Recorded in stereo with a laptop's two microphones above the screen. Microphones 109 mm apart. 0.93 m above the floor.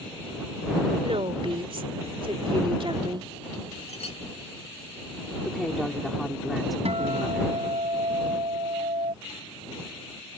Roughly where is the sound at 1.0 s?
Right.